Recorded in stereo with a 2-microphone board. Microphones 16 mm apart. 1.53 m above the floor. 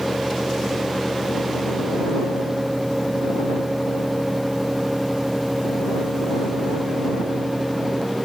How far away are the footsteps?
No footsteps in this recording.